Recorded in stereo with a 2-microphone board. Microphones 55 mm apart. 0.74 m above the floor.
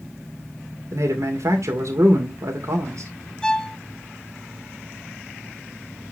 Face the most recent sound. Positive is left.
turn(degrees=15)  # may be behind; listen again after turning